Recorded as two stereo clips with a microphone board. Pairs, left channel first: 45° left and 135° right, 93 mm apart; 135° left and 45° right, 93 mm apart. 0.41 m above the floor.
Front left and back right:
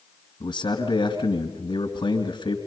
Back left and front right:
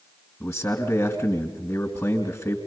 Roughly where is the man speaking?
Left.